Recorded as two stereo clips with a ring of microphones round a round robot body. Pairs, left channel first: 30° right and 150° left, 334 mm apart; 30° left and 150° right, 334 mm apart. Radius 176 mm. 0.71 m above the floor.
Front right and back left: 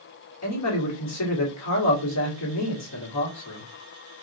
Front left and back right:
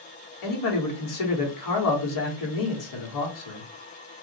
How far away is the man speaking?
About 1.9 m.